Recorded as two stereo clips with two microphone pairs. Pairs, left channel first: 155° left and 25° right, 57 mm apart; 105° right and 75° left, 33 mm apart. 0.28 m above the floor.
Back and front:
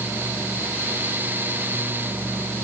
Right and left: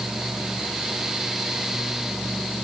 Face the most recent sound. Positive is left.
No sound to turn to.